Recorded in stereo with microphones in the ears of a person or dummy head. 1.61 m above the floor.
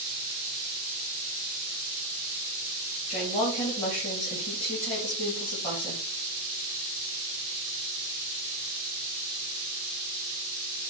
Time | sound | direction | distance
3.1 | a woman speaking | 40° left (ahead or behind) | 2.0 m